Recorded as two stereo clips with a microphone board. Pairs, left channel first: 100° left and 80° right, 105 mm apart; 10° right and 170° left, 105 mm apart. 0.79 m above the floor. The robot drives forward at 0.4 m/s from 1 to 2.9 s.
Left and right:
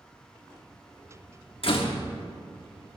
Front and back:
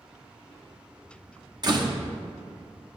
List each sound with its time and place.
1.6 s a door slam: 125° left, 1.0 m; by 2.0 s 130° left, 1.1 m